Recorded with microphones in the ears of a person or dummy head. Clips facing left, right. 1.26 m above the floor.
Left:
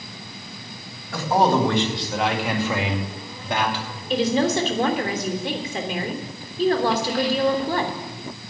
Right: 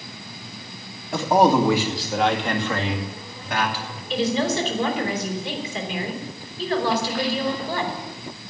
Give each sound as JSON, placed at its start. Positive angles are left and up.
{"t": 1.1, "sound": "a man speaking", "side_deg": -25, "distance_m": 1.8}
{"t": 4.1, "sound": "a woman speaking", "side_deg": 40, "distance_m": 3.5}